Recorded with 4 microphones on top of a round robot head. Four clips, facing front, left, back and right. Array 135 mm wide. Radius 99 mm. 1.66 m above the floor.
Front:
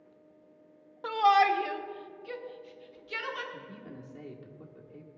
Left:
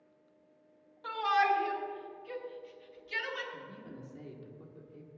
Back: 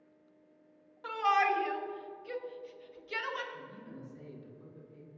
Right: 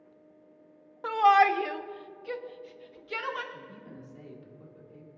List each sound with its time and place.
1.0 s a shout: 55° right, 0.8 m; by 3.4 s 105° right, 1.7 m
3.5 s a man speaking: 15° left, 2 m